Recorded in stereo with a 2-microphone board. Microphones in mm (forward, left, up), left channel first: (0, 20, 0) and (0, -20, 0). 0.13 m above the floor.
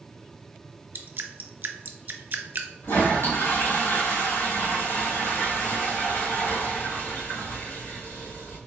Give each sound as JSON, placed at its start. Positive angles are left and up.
{"t": 0.9, "sound": "dripping", "side_deg": -50, "distance_m": 0.5}
{"t": 2.8, "sound": "a toilet flushing", "side_deg": 60, "distance_m": 1.4}